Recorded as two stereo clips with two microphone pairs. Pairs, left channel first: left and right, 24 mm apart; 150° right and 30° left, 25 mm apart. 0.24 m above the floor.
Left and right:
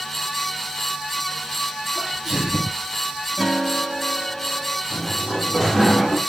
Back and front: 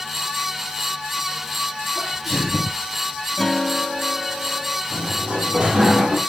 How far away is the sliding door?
About 4 m.